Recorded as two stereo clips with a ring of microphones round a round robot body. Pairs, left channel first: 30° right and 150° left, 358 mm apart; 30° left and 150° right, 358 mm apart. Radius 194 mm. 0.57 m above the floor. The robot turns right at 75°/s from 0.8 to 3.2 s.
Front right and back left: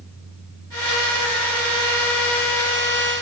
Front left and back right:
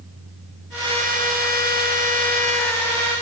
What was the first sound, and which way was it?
Only background noise.